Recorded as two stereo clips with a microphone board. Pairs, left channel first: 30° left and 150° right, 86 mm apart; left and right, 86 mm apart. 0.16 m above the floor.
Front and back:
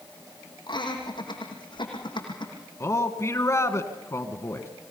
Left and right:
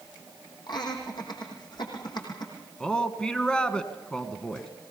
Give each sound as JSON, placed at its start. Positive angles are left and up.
{"t": 0.7, "sound": "laughter", "azimuth_deg": 55, "distance_m": 6.5}
{"t": 2.8, "sound": "a man speaking", "azimuth_deg": 20, "distance_m": 1.5}